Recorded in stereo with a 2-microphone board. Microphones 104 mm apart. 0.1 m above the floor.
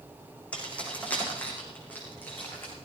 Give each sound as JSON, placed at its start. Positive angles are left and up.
{"t": 0.5, "sound": "keys jangling", "side_deg": 10, "distance_m": 4.0}